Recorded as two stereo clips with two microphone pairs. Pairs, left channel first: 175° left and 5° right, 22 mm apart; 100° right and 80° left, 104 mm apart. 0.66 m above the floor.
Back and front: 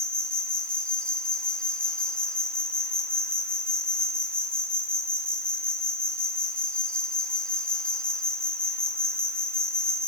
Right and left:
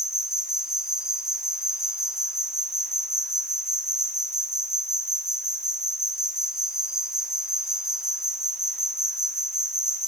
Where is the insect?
160° left, 1.0 m.